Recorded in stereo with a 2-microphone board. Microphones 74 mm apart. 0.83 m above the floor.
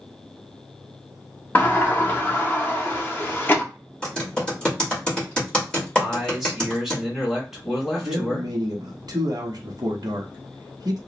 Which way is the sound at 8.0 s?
60° right (ahead or behind).